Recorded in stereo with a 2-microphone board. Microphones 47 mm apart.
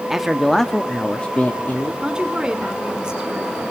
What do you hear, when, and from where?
0.1 s a man speaking: 5° right (ahead or behind), 0.9 m; by 1.9 s 35° left (ahead or behind), 1.4 m
2.0 s a woman speaking: 15° right (ahead or behind), 2 m